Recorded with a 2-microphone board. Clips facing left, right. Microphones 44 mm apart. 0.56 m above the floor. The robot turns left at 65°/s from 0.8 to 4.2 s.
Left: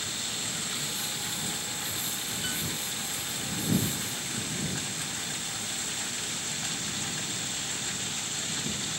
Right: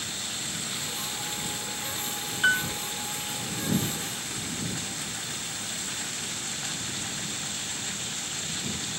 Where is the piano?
70° right (ahead or behind); by 2.7 s 55° right (ahead or behind).